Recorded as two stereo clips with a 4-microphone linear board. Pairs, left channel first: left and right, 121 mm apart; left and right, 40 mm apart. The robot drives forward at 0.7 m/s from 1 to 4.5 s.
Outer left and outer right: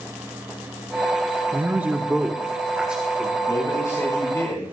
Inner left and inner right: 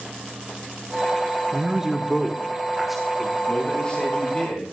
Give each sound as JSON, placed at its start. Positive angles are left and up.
{"t": 1.5, "sound": "a man speaking", "side_deg": -15, "distance_m": 0.6}
{"t": 3.5, "sound": "a man speaking", "side_deg": 25, "distance_m": 7.0}